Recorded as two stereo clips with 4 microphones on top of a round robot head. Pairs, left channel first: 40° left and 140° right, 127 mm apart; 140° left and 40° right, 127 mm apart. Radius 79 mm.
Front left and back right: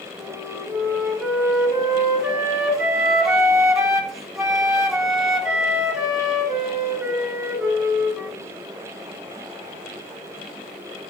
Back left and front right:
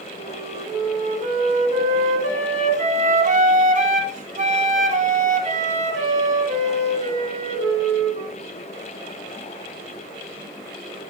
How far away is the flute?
About 1.2 m.